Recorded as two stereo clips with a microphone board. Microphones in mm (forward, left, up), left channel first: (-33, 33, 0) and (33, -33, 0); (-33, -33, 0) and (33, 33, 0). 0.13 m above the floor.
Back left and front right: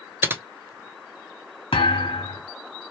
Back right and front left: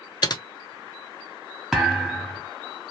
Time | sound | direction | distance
0.2 | typing on a keyboard | 105° right | 0.6 m
1.7 | a thud | 130° left | 1.6 m